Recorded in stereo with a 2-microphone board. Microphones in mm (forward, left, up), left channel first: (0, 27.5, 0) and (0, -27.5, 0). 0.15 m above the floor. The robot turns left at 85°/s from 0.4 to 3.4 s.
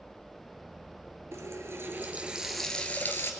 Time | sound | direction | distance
1.3 | a running tap | 75° right | 1.9 m